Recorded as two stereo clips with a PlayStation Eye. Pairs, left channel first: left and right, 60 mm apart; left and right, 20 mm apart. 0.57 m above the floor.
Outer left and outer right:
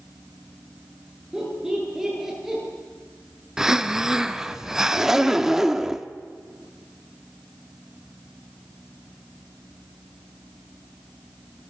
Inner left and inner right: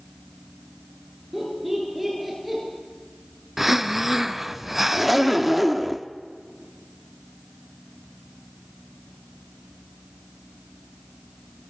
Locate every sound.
1.3 s laughter: 10° right (ahead or behind), 9 m; by 2.6 s 5° right (ahead or behind), 10 m
3.6 s breathing: 10° right (ahead or behind), 0.8 m
4.9 s a zipper: 10° right (ahead or behind), 1.1 m